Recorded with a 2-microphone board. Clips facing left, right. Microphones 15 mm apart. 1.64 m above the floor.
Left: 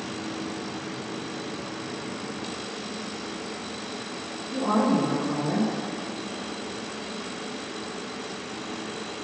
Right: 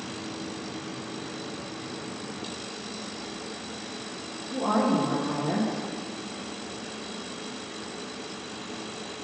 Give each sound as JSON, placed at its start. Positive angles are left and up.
{"t": 4.5, "sound": "a woman speaking", "side_deg": -35, "distance_m": 2.5}